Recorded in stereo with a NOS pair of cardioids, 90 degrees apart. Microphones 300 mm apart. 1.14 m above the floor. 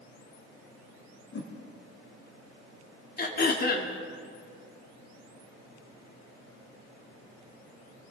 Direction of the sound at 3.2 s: 30° left.